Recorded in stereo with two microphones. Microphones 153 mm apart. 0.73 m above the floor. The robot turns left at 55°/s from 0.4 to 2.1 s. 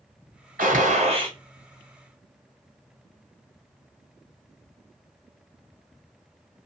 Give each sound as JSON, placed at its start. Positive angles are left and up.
{"t": 0.6, "sound": "a gunshot", "azimuth_deg": -105, "distance_m": 1.2}